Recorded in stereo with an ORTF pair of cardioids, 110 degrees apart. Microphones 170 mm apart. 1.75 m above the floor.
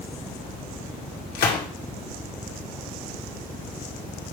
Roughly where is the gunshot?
Left.